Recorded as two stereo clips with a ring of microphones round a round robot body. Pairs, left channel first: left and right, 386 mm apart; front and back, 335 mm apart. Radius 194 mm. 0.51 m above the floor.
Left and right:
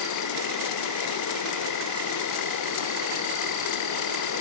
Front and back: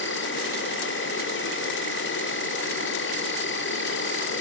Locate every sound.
0.0 s an insect: 50° left, 1.6 m